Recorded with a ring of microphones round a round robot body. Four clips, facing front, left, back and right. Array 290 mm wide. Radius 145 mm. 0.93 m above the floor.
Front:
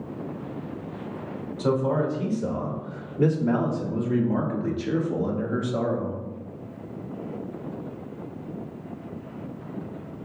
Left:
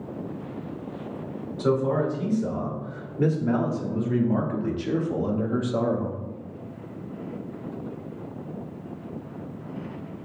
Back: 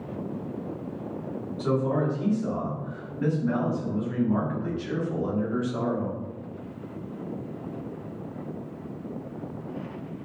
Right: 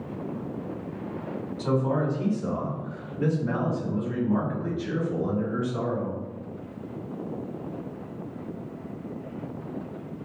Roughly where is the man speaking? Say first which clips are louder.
Left 3 dB, front 2 dB; ahead left.